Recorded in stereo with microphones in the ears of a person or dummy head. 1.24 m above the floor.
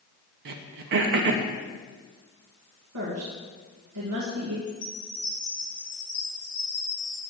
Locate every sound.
0.5 s throat clearing: 50° right (ahead or behind), 0.7 m
2.9 s a woman speaking: 70° right (ahead or behind), 1.6 m
4.7 s a chime: 10° left (ahead or behind), 3 m